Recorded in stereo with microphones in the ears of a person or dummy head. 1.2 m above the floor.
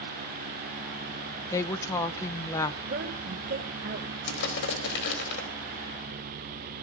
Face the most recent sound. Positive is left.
turn(degrees=80)